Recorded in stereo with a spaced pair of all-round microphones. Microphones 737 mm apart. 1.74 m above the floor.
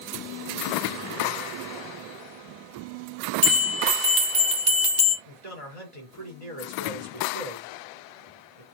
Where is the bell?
70° right (ahead or behind), 1.8 m.